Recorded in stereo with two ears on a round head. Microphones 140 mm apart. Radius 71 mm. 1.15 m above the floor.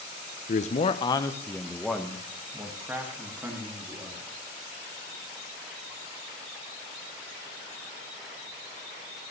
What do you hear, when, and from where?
0.5 s a man speaking: 55° left (ahead or behind), 0.6 m; by 4.3 s 20° right (ahead or behind), 2.5 m